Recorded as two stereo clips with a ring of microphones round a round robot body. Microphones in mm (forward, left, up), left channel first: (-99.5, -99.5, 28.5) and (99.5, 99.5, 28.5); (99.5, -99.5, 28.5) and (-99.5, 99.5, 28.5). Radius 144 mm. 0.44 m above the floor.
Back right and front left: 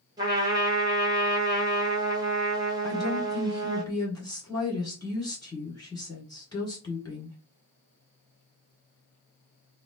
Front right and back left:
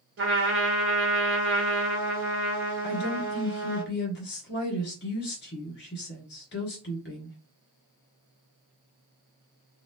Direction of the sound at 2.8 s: 65° right.